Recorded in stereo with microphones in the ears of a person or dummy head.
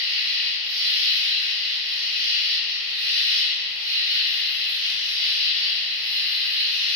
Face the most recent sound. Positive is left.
turn(degrees=-75)  # may be behind; listen again after turning